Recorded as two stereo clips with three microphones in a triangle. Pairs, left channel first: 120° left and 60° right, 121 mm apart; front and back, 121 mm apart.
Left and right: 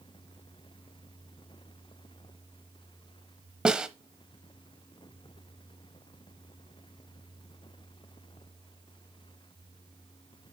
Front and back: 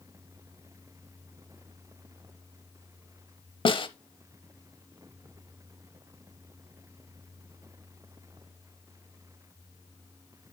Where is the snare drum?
20° left, 0.7 m.